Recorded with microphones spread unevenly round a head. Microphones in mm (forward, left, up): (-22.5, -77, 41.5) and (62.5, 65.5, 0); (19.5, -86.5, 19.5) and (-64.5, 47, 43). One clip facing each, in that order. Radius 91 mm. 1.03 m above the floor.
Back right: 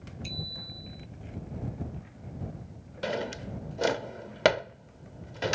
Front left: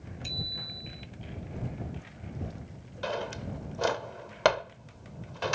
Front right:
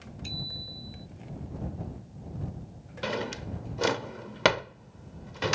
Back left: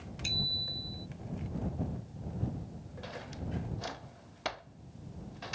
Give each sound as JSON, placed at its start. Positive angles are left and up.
{"t": 0.2, "sound": "a bicycle bell", "azimuth_deg": 145}
{"t": 3.0, "sound": "a drawer", "azimuth_deg": -60}